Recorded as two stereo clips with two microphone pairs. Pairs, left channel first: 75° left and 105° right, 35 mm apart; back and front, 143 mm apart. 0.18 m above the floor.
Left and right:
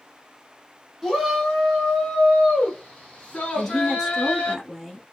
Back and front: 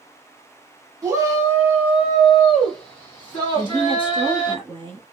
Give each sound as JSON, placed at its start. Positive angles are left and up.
{"t": 1.0, "sound": "a shout", "azimuth_deg": -30, "distance_m": 1.5}
{"t": 3.5, "sound": "a woman speaking", "azimuth_deg": -15, "distance_m": 1.3}